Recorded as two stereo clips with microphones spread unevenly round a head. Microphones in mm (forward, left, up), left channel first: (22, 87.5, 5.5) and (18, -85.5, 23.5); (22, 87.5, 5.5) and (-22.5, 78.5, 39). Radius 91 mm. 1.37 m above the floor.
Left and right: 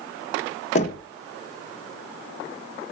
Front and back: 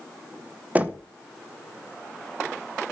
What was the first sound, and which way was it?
Knocking, 145° left.